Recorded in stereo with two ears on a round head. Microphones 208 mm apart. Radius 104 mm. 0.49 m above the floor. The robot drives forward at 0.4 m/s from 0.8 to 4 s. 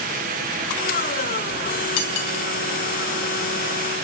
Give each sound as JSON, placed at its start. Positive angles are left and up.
{"t": 2.0, "sound": "cutlery clinking", "side_deg": 70, "distance_m": 2.5}